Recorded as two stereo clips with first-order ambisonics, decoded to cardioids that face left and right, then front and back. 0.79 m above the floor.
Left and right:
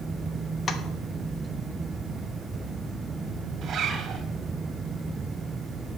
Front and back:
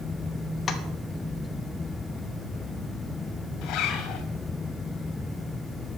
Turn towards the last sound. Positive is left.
turn(degrees=-35)